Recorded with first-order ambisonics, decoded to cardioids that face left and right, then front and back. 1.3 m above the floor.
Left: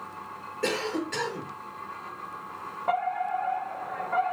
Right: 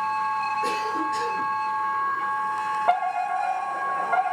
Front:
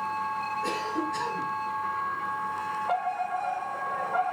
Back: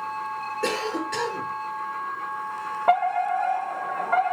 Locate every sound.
0.6 s a cough: 150° left, 3.5 m
2.9 s a fire alarm: 165° right, 5.5 m